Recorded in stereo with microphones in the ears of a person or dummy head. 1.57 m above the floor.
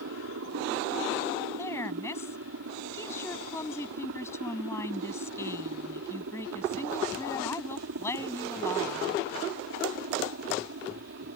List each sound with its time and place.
0.0 s a helicopter: 75° right (ahead or behind); by 11.4 s 65° right (ahead or behind)
1.6 s a woman speaking: 15° left (ahead or behind)